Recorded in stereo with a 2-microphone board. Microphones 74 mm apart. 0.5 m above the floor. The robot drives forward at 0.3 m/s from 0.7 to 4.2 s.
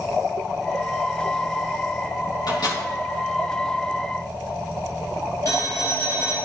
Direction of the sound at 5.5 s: 45° left (ahead or behind).